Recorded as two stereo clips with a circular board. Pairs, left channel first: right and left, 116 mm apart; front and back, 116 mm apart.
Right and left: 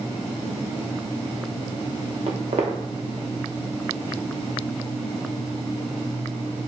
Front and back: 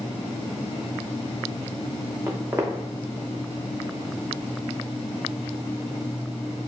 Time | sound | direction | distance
2.3 | footsteps | 110° left | 0.7 m